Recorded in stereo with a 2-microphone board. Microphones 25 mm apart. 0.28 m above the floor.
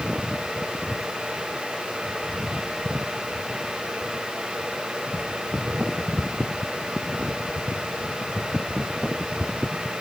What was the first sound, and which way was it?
Only background noise.